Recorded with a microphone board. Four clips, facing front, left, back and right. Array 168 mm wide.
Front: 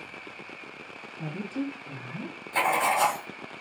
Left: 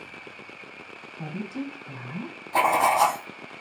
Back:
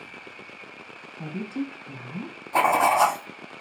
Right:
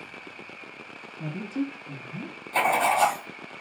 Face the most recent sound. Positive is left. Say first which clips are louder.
# left 2 dB, back 5 dB
turn(degrees=145)